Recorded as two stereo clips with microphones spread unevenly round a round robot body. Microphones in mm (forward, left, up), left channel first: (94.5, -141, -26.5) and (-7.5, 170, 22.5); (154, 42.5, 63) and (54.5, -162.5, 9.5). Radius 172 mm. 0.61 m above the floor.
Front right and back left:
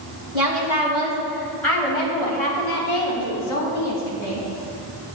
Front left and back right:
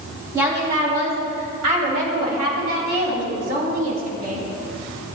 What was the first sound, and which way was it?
A woman speaking, 175° left.